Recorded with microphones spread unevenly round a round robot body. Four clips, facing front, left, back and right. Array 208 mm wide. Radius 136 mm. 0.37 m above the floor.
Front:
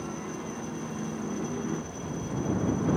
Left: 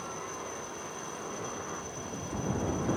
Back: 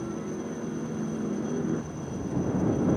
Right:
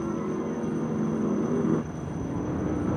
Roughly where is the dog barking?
I don't hear a dog barking.